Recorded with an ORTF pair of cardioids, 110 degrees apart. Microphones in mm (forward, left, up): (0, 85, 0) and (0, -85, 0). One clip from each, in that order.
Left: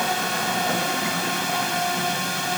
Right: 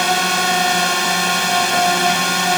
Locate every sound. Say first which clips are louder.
0.0 s a drone: right 7 dB; 55° right